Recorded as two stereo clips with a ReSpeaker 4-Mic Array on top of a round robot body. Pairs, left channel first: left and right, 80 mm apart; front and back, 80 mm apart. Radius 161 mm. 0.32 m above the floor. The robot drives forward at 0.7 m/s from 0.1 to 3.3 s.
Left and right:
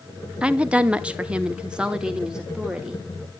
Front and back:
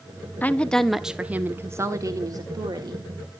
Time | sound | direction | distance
0.4 | a woman speaking | 30° right | 1.1 m